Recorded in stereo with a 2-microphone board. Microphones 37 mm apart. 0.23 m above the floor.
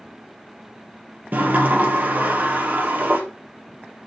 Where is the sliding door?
55° right (ahead or behind), 2.0 m.